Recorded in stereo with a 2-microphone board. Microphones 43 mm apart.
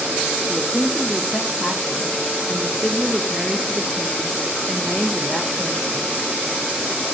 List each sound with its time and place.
0.5 s a woman speaking: 10° left (ahead or behind), 2.5 m